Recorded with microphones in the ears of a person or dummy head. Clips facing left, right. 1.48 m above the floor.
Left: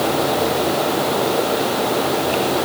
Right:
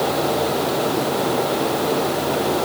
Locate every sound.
Only background noise.